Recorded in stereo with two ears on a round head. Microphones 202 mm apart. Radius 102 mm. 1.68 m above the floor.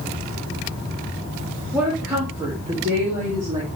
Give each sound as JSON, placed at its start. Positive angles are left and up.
{"t": 1.7, "sound": "a woman speaking", "side_deg": -5, "distance_m": 2.0}